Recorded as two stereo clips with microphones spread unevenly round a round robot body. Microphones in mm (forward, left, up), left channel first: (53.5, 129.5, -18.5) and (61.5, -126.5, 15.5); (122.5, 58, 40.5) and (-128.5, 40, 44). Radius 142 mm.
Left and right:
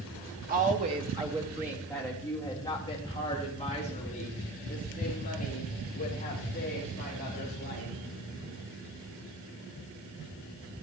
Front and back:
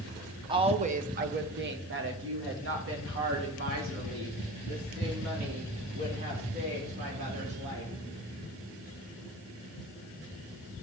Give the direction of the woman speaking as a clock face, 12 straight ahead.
4 o'clock.